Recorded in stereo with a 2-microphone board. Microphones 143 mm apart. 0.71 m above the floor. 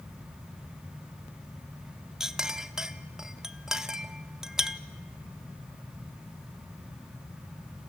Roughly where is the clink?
Centre.